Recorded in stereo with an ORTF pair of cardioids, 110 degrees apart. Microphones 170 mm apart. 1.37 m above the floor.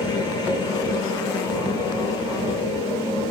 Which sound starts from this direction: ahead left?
A machine running, at 0.0 s.